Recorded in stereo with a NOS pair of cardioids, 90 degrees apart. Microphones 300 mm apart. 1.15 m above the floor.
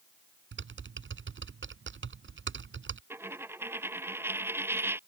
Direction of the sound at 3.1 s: 10° right.